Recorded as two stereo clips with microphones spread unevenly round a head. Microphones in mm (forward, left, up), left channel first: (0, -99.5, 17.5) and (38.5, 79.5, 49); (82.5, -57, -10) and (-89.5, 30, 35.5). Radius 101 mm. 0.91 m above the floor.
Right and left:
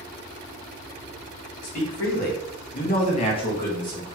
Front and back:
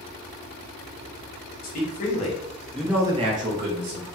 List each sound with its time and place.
1.6 s a man speaking: 65° right, 2 m; by 4.1 s 175° left, 1.7 m